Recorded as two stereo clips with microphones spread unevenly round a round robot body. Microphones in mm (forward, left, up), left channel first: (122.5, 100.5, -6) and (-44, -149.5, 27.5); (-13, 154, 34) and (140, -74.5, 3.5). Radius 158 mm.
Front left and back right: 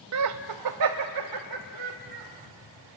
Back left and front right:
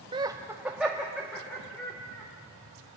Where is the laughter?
115° right, 0.6 m; by 2.2 s 150° right, 1.8 m.